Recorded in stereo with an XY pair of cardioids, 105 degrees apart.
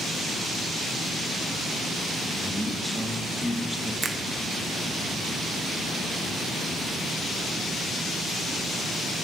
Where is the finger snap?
35° right, 1.0 m.